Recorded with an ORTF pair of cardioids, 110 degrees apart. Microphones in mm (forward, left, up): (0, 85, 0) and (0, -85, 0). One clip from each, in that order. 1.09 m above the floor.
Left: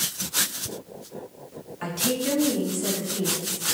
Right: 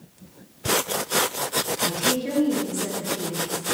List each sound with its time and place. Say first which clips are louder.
1.8 s a woman speaking: left 1 dB; 5° left, 2.5 m; by 3.6 s straight ahead, 3.5 m